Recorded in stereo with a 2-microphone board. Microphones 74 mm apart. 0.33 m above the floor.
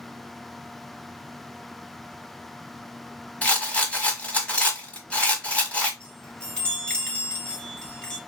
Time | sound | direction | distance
3.4 | a rattle | 20° left (ahead or behind) | 1.2 m
6.0 | a chime | 15° left (ahead or behind) | 3.5 m